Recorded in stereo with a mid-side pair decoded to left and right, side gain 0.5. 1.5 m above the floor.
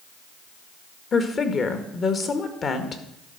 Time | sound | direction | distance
1.1 | a woman speaking | 40° left | 1.6 m